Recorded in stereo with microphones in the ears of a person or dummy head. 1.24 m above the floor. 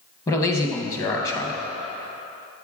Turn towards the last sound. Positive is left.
turn(degrees=15)  # may be behind; listen again after turning